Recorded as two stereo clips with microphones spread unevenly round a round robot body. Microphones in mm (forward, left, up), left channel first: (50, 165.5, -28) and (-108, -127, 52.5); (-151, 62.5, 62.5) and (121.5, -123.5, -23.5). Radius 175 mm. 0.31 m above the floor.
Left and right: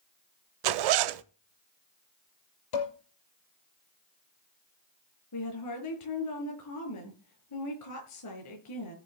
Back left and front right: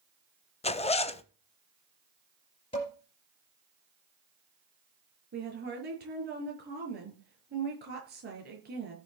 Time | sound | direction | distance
0.6 | a zipper | 135° right | 0.7 m
2.7 | dishes clattering | 70° left | 5 m
5.3 | a woman speaking | 25° left | 5 m